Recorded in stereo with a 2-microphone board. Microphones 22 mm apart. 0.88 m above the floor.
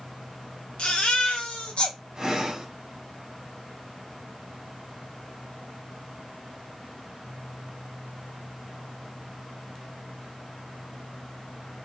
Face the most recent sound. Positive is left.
turn(degrees=-30)  # may be behind; listen again after turning